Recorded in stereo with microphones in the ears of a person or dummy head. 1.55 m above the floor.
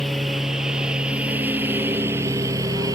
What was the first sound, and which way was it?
A lawn mower, centre (ahead or behind).